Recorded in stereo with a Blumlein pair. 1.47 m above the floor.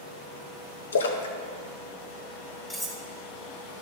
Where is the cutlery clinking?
5° left, 1.6 m.